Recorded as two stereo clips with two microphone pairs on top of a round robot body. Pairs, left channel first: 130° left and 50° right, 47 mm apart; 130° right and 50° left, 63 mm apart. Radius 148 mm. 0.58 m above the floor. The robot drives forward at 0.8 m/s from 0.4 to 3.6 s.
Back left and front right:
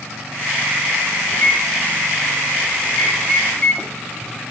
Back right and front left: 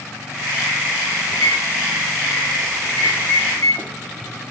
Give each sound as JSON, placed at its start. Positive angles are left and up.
{"t": 1.3, "sound": "a microwave", "azimuth_deg": 175, "distance_m": 2.0}